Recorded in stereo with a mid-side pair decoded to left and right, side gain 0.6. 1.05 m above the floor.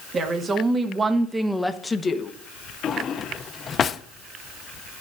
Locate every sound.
0.1 s a woman speaking: 40° right, 1.7 m; by 2.3 s 40° left, 0.8 m
2.8 s a drawer: 35° left, 0.5 m